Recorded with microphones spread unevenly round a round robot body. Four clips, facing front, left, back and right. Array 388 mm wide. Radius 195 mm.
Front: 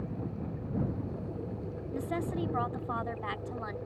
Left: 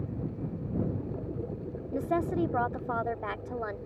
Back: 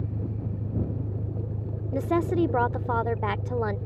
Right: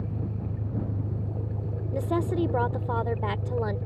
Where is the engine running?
125° right.